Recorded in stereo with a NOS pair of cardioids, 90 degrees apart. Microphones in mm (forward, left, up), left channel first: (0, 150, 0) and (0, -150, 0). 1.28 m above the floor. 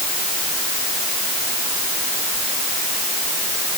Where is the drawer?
I don't hear a drawer.